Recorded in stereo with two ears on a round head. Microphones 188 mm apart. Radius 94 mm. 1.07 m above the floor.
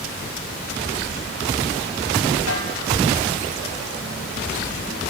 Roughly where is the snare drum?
Left.